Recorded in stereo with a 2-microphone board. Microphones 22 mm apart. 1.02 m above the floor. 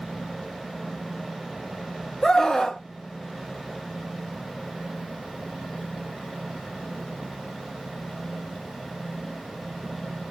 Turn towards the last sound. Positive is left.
turn(degrees=25)  # may be behind; listen again after turning